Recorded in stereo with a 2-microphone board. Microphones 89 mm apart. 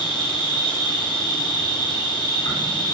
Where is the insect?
50° left (ahead or behind), 0.8 m.